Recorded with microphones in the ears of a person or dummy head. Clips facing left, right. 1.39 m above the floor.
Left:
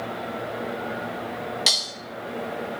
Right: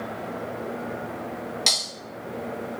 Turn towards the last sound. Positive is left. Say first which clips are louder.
# even
turn(degrees=10)  # may be behind; listen again after turning